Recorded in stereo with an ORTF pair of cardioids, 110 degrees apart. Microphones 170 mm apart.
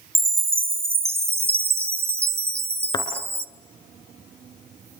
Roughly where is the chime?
Ahead.